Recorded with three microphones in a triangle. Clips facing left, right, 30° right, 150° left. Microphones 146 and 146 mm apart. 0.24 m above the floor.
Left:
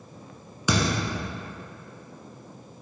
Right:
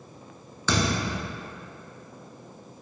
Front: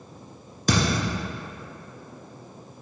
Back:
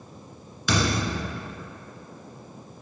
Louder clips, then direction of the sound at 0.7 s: Left 1 dB, front 1 dB; 15° left.